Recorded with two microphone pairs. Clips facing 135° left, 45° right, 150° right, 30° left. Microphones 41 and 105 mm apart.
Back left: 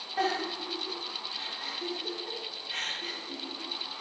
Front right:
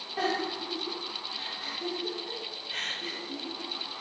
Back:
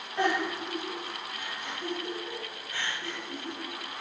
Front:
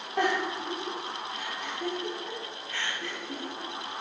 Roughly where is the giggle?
Ahead left.